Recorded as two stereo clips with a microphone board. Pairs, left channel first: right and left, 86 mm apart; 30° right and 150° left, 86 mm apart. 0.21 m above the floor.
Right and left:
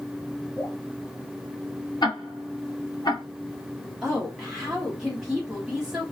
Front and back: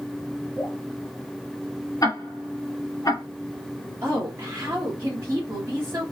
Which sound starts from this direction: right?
Ticking, at 2.0 s.